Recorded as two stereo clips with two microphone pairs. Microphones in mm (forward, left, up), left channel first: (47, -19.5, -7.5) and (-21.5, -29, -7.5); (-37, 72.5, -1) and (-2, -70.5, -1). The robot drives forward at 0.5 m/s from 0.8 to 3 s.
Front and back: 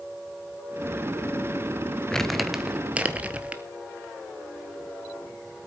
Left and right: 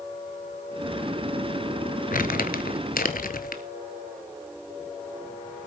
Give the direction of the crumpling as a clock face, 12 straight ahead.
9 o'clock.